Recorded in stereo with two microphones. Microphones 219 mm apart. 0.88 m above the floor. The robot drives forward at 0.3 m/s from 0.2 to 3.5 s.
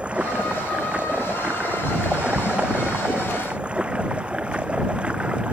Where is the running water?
5° right (ahead or behind).